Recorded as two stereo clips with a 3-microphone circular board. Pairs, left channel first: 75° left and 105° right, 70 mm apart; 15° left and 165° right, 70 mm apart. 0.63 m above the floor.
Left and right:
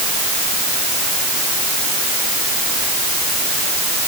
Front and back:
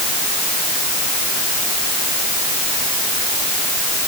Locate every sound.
Only background noise.